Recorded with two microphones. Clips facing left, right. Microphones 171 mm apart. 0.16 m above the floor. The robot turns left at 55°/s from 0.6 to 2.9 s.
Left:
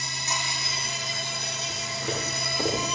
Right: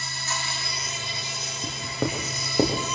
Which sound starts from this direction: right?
Writing, at 1.6 s.